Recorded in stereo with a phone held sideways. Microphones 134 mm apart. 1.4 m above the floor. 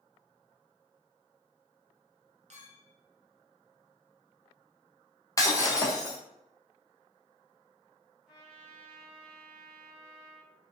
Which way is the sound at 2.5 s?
55° right (ahead or behind).